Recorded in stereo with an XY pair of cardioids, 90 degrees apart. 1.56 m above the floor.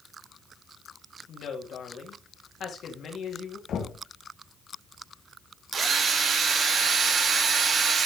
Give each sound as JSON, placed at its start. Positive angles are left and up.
{"t": 1.3, "sound": "a woman speaking", "azimuth_deg": 70, "distance_m": 3.0}
{"t": 3.7, "sound": "knocking", "azimuth_deg": 70, "distance_m": 2.0}
{"t": 5.7, "sound": "a drill", "azimuth_deg": -55, "distance_m": 3.0}